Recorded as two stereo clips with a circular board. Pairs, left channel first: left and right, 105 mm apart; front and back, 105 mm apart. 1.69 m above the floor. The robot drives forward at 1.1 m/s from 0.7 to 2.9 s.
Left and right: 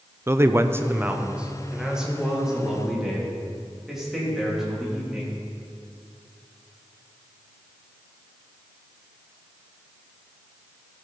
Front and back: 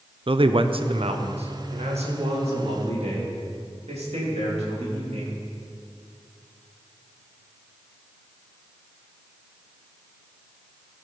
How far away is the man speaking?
About 0.6 m.